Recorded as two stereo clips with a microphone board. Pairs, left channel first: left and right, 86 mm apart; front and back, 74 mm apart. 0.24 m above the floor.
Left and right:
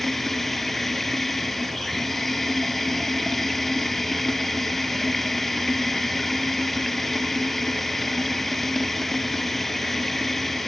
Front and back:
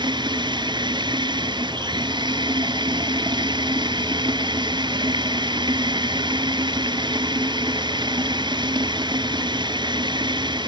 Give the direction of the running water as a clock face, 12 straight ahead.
6 o'clock.